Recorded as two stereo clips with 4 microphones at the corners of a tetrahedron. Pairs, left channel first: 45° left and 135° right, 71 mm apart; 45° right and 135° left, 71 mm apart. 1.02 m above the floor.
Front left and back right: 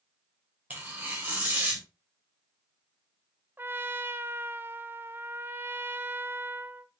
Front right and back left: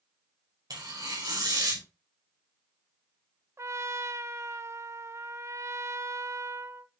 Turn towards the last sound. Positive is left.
turn(degrees=170)